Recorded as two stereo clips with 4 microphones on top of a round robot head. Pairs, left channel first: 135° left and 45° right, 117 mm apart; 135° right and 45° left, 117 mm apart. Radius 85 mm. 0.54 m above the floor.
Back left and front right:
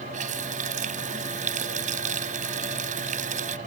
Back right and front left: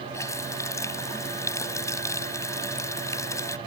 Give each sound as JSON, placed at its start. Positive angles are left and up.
{"t": 0.1, "sound": "a running tap", "azimuth_deg": -70}